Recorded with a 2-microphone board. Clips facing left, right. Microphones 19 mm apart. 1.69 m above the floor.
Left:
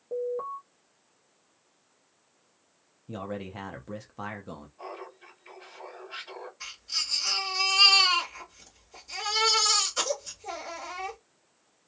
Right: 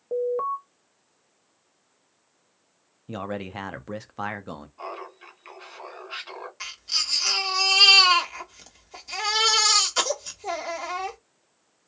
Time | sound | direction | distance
0.1 | an alarm | 40° right (ahead or behind) | 0.6 m
3.1 | a man speaking | 35° right (ahead or behind) | 0.5 m
4.8 | laughter | 65° right (ahead or behind) | 1.7 m
6.6 | a baby crying | 60° right (ahead or behind) | 1.3 m